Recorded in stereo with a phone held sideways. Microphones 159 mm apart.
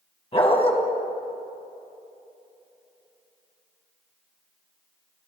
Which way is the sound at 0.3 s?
40° left (ahead or behind).